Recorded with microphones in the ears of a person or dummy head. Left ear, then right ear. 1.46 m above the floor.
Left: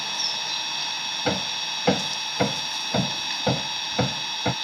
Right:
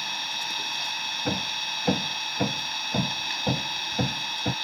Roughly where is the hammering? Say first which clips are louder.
Left 2 dB; left.